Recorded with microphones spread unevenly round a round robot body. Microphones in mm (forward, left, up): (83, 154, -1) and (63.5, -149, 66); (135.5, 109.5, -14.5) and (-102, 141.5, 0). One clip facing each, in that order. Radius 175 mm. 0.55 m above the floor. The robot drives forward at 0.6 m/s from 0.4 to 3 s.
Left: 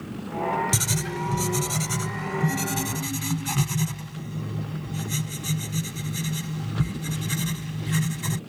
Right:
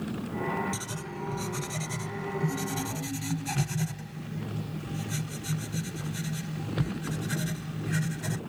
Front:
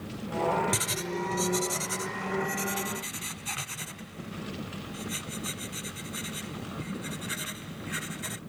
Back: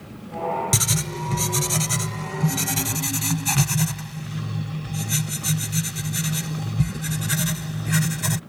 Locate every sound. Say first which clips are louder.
0.7 s writing: left 7 dB, back 3 dB; 130° left; by 8.4 s 165° left